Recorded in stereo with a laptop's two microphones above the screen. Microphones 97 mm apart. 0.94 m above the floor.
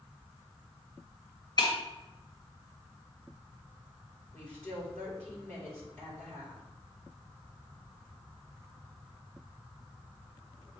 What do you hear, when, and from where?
1.6 s breaking glass: 45° left (ahead or behind), 1.6 m
4.3 s a woman speaking: 25° left (ahead or behind), 2.5 m